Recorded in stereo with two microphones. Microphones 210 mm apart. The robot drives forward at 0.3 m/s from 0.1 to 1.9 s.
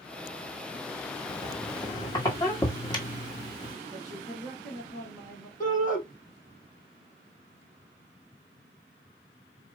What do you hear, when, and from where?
1.3 s a squeak: 20° left (ahead or behind), 1.6 m
3.9 s a woman speaking: centre (ahead or behind), 2 m
5.6 s a shout: 40° left (ahead or behind), 3.5 m